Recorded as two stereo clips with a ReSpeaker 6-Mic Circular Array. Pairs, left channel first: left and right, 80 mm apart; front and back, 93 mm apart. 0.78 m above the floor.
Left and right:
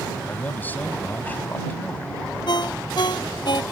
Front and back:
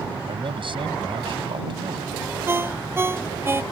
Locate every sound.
0.2 s a man speaking: 155° left
2.5 s a ringtone: 115° left